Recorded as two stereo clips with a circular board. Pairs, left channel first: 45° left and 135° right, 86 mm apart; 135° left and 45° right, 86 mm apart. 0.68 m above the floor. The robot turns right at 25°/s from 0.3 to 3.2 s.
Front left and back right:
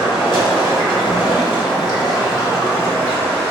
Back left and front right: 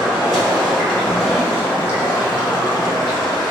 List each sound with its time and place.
0.0 s running water: 40° left, 1.7 m; by 3.5 s 110° left, 1.7 m